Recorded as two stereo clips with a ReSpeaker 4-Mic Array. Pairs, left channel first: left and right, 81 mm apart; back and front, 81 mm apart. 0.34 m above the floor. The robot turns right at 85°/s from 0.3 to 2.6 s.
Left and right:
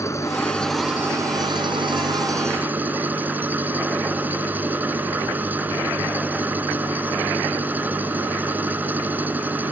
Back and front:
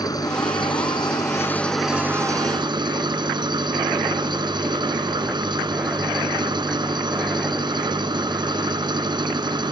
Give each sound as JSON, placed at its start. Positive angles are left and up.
{"t": 0.0, "sound": "an engine running", "azimuth_deg": 145}